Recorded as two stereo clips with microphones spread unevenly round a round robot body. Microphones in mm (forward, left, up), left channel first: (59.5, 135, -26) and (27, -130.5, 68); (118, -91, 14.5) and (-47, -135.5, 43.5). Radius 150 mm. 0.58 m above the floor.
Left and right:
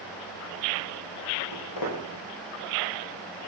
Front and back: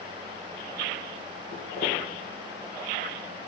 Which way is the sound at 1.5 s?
80° left.